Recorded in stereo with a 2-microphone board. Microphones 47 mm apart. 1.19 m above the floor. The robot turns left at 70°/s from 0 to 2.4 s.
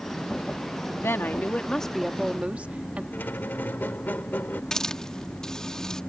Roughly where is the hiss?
Centre.